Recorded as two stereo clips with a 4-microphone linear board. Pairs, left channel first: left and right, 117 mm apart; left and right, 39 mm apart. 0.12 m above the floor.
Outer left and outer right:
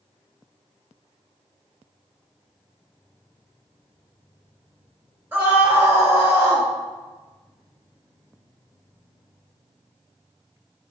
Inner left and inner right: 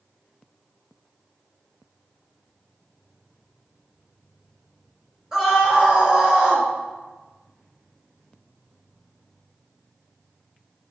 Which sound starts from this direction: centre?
A scream, at 5.3 s.